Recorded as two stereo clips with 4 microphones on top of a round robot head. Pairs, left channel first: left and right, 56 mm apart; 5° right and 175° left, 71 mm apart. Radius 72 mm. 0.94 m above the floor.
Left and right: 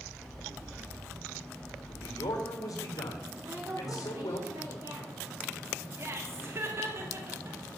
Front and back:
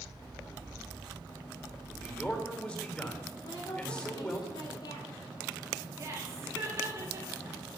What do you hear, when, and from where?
1.9 s a man speaking: 70° left, 3.5 m
3.4 s a woman speaking: 40° right, 4 m
6.0 s laughter: 130° right, 2 m